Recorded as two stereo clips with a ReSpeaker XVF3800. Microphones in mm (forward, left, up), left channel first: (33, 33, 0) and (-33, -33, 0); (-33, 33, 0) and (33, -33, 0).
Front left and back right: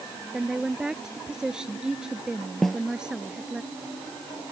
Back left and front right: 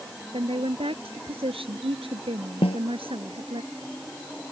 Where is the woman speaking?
55° right.